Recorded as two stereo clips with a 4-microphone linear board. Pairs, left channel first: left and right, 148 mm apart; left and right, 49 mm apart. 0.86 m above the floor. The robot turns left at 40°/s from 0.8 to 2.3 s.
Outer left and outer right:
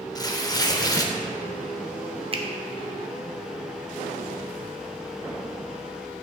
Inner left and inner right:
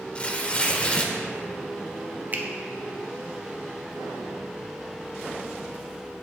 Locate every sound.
0.1 s tearing paper: 25° left (ahead or behind), 0.6 m; by 1.1 s 20° left (ahead or behind), 0.6 m
2.3 s a finger snap: 40° right (ahead or behind), 0.6 m